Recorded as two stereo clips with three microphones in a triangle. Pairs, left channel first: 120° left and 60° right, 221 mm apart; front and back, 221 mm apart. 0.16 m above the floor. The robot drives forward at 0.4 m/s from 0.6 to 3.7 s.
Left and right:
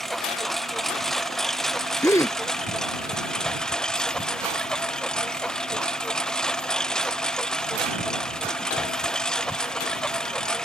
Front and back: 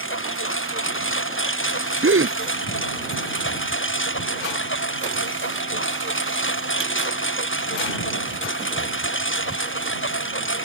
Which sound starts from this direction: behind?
A gasp, at 2.0 s.